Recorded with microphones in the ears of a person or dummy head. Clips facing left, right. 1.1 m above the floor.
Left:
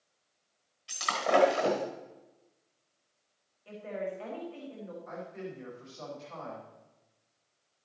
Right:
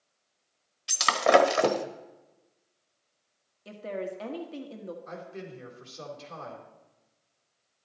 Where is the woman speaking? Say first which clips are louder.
Right 2 dB; 50° right (ahead or behind), 1.6 m.